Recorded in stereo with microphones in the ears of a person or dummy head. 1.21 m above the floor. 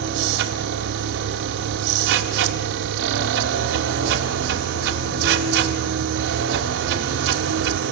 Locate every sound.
0.0 s a machine running: 65° right (ahead or behind), 2 m